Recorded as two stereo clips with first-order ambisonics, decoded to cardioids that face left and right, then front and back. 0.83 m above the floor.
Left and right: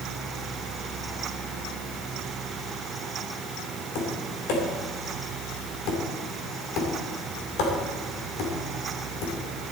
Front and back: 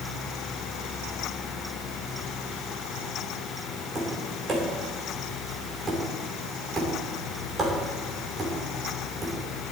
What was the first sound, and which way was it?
Tapping, 110° left.